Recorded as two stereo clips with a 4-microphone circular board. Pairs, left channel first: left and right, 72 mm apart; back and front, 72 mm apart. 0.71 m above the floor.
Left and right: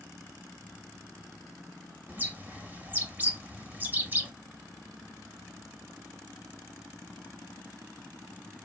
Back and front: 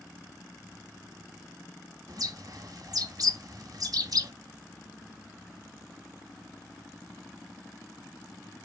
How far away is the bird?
About 1.0 m.